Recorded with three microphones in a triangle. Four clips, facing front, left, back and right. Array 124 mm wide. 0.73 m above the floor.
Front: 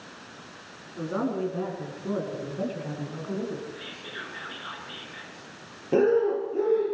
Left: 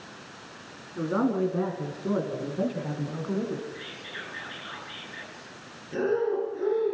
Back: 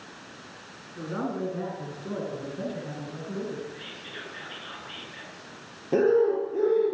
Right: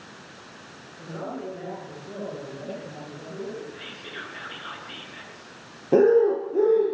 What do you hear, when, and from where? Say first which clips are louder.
0.9 s a man speaking: left 9 dB, front 3 dB; 75° left, 9.5 m; by 3.7 s 70° left, 7 m
3.8 s whispering: right 1 dB, front 2 dB; 55° right, 9.5 m
5.9 s breathing: right 9 dB, even; 85° right, 9.5 m